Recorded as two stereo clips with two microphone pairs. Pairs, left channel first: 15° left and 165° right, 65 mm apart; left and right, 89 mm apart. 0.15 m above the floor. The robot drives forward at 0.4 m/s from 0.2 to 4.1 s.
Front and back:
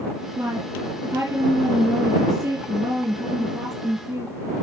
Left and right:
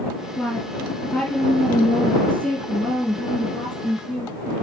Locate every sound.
0.4 s a woman speaking: 170° left, 3 m; by 4.6 s 175° left, 4.5 m